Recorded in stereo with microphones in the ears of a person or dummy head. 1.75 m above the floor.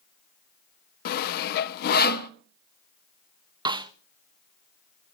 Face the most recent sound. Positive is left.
turn(degrees=-20)  # may be behind; listen again after turning